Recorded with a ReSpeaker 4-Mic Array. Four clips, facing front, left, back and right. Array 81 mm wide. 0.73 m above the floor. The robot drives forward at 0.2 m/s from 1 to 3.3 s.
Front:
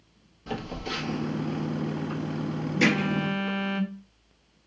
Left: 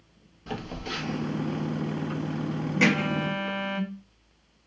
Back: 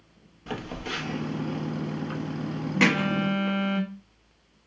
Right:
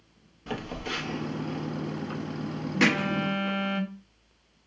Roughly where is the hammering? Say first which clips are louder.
Even, back 1 dB; behind.